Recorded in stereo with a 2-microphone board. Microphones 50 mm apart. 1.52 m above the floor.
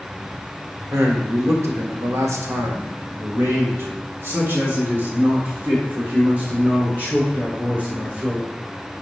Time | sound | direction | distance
0.9 | a man speaking | 70° right (ahead or behind) | 1.9 m